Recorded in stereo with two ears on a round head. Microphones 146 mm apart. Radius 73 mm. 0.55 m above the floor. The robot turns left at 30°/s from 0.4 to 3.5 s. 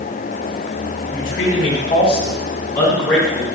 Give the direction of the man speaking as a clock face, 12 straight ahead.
10 o'clock.